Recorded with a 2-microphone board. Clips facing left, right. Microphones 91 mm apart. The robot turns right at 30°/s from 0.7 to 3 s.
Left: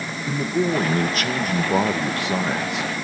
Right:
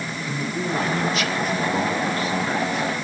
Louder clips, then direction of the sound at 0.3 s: Left 6 dB; 35° left.